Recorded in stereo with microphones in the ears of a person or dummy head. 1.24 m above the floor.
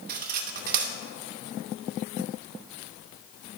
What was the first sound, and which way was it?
Cutlery clinking, 55° right (ahead or behind).